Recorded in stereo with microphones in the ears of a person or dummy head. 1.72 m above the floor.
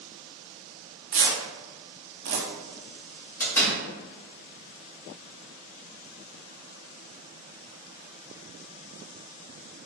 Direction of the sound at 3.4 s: 15° left (ahead or behind).